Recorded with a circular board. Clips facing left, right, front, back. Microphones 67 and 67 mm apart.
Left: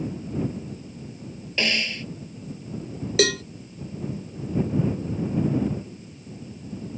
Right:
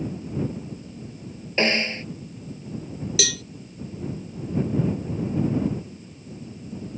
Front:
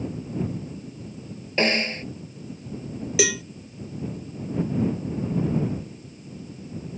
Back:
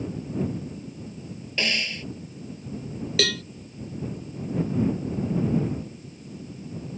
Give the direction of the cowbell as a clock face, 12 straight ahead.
10 o'clock.